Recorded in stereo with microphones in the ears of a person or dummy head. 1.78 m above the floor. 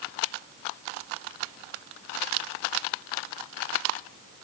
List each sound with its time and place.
Only background noise.